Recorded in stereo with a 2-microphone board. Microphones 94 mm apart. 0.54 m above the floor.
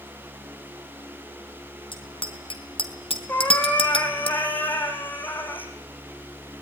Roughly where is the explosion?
No explosion in this recording.